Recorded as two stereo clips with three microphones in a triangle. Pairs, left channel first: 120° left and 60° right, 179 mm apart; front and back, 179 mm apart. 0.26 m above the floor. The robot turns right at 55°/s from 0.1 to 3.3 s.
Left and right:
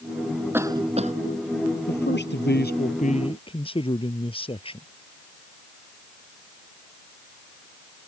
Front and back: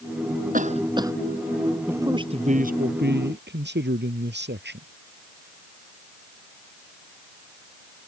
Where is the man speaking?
100° left; by 4.9 s straight behind.